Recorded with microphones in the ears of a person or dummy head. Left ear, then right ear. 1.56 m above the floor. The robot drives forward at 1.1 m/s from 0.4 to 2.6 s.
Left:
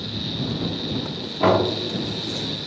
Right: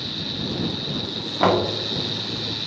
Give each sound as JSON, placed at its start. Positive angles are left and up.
{"t": 1.4, "sound": "knocking", "side_deg": -50, "distance_m": 2.0}